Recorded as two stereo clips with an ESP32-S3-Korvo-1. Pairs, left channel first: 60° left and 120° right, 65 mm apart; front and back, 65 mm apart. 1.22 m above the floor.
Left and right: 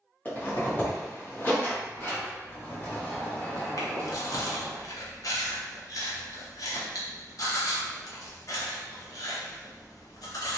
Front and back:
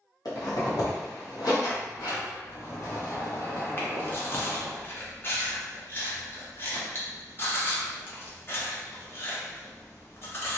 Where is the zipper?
Straight ahead, 0.8 m.